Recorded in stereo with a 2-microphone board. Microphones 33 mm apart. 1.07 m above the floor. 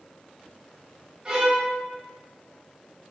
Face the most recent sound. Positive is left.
turn(degrees=-25)  # may be behind; listen again after turning